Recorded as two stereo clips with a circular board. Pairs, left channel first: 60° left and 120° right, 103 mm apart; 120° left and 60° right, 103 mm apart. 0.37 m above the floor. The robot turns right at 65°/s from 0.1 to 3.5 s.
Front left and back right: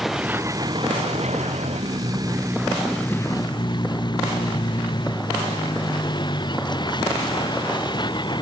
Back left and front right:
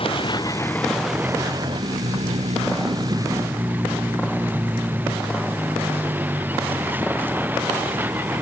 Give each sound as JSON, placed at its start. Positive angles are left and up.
{"t": 0.0, "sound": "a vehicle", "azimuth_deg": 150}